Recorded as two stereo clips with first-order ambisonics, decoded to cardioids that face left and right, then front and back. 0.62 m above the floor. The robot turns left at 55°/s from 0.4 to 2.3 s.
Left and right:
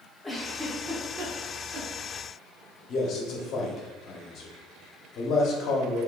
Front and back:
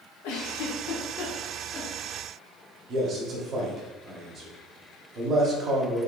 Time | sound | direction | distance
0.2 | a giggle | 5° left | 0.8 m
2.9 | a man speaking | 130° left | 1.0 m